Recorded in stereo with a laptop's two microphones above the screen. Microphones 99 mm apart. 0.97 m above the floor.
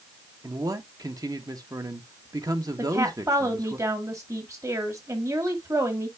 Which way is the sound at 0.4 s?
35° right (ahead or behind).